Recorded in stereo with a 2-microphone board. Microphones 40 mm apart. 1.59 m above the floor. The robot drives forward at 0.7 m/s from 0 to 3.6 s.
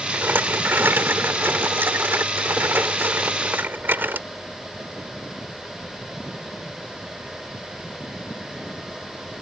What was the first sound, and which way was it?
A rattle, 60° right (ahead or behind).